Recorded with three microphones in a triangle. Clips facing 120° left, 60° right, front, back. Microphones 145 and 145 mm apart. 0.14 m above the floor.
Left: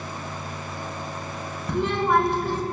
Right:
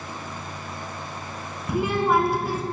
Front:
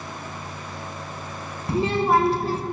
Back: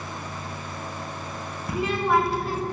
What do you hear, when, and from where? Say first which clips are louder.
1.7 s a child speaking: even, front 3 dB; 15° left, 0.7 m